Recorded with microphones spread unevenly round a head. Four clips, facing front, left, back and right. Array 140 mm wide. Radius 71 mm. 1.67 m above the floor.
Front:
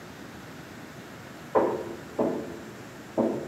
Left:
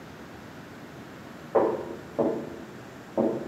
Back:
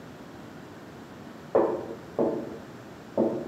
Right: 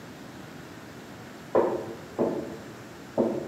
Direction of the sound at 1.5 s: 175° right.